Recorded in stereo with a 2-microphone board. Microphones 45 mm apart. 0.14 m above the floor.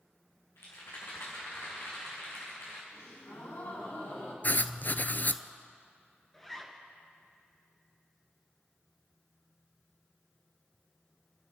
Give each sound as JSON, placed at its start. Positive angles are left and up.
{"t": 0.6, "sound": "a rattle", "side_deg": 85, "distance_m": 4.5}
{"t": 2.9, "sound": "a gasp", "side_deg": 70, "distance_m": 5.0}
{"t": 4.4, "sound": "writing", "side_deg": 45, "distance_m": 0.5}
{"t": 6.3, "sound": "a zipper", "side_deg": 10, "distance_m": 2.0}